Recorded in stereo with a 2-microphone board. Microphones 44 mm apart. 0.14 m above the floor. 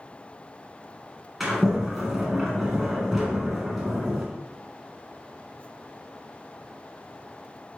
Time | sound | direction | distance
1.4 | a sliding door | 5° right (ahead or behind) | 1.3 m